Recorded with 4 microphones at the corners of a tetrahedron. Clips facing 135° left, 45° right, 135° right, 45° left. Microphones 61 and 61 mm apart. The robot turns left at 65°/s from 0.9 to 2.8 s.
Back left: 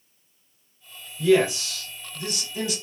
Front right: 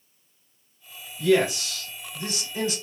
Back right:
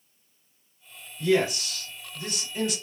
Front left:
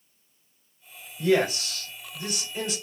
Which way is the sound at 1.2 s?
50° left.